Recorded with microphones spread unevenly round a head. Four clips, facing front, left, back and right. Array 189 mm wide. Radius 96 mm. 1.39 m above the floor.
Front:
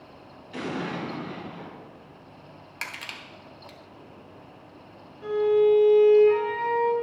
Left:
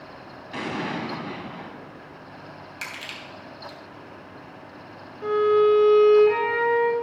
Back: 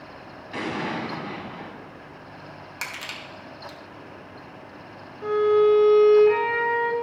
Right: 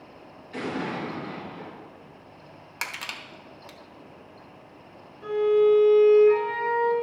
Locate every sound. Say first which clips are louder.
0.5 s an explosion: left 1 dB, back 2 dB; 125° left, 1.9 m
2.8 s crushing: right 4 dB, back 2 dB; 100° right, 1.0 m
5.2 s a violin: left 2 dB, back 2 dB; 125° left, 1.8 m